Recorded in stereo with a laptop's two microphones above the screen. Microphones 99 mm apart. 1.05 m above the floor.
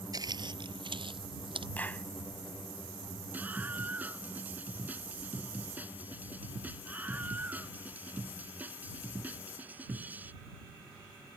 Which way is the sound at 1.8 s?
15° left (ahead or behind).